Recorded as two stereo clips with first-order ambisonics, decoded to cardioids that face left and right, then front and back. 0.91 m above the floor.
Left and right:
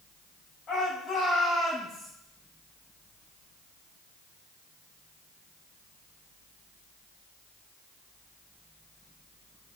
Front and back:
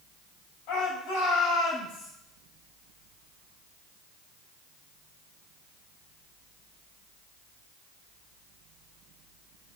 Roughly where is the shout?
Ahead.